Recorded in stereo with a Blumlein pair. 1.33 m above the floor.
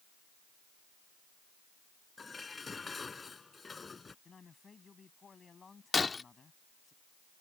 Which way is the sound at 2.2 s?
15° left.